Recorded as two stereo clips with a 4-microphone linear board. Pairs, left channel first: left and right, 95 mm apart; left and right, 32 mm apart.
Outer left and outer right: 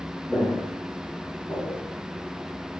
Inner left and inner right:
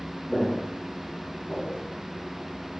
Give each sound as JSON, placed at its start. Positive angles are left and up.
{"t": 0.3, "sound": "footsteps", "side_deg": 10, "distance_m": 1.3}